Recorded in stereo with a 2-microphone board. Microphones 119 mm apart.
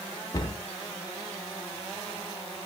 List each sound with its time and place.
0.3 s a cupboard door: 30° left (ahead or behind), 0.8 m